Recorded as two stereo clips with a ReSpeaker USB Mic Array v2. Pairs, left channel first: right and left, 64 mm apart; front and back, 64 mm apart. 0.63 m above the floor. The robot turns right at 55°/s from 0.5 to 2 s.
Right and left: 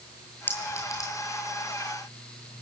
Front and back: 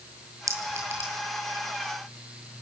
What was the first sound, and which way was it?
A clink, 150° right.